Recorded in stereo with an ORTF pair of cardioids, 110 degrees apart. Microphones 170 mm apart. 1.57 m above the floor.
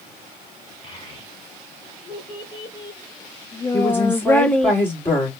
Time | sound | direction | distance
0.8 | a child speaking | 30° left | 3 m
3.7 | a woman speaking | 10° left | 4 m